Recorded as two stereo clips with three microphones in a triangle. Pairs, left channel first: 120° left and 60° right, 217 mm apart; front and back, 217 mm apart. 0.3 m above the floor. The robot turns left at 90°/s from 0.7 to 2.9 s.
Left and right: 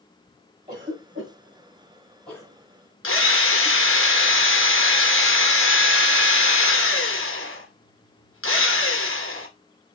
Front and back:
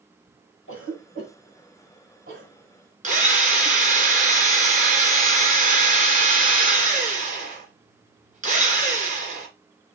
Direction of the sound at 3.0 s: 125° left.